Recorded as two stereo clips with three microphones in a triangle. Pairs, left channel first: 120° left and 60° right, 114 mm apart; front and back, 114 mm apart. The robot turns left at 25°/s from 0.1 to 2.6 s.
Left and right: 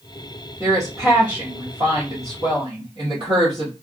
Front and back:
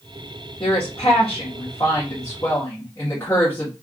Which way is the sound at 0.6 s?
Straight ahead.